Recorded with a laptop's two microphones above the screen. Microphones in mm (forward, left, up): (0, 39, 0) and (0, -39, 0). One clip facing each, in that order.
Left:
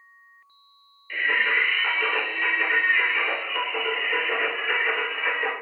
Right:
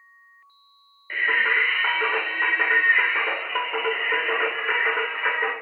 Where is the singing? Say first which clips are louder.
Right 1 dB; 40° right (ahead or behind), 0.8 m.